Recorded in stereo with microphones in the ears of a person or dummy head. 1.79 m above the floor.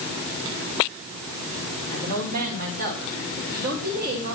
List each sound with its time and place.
1.9 s a woman speaking: 45° right (ahead or behind), 6.5 m